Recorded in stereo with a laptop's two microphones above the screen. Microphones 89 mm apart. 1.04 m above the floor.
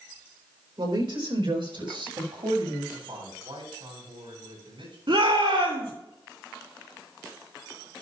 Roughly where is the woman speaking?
Right.